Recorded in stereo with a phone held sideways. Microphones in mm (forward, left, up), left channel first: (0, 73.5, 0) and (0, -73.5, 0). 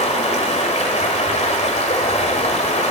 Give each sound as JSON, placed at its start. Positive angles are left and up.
{"t": 0.0, "sound": "running water", "side_deg": 50, "distance_m": 1.4}